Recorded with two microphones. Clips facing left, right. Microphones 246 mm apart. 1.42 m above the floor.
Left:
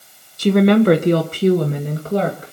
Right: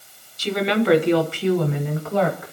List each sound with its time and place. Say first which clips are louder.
0.4 s a woman speaking: left 9 dB; 55° left (ahead or behind), 0.9 m; by 2.5 s 35° left (ahead or behind), 2.5 m